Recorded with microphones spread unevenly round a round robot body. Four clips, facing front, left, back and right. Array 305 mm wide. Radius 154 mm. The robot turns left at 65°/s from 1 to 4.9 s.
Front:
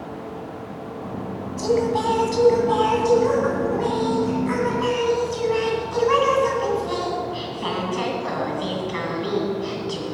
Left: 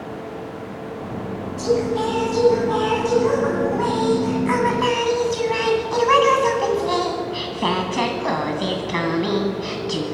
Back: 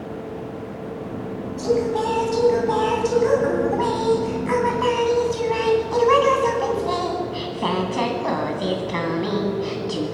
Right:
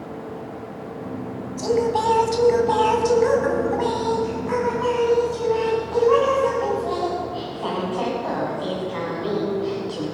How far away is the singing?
About 2.5 m.